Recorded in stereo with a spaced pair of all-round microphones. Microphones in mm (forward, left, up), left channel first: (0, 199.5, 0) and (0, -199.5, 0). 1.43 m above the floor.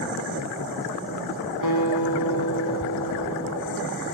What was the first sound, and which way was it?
A guitar, 50° left (ahead or behind).